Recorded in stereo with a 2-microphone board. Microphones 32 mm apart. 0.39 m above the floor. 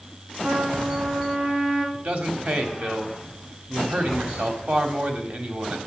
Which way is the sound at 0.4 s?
75° right (ahead or behind).